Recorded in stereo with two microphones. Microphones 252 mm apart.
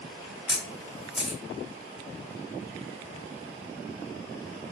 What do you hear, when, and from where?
0.5 s a camera shutter: 5° right (ahead or behind), 1.2 m